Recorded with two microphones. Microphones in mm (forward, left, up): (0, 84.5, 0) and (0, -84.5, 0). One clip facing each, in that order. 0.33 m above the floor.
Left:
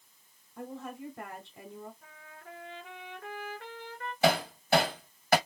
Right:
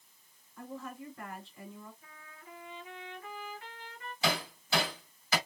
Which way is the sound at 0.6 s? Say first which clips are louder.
Left 3 dB; 70° left (ahead or behind).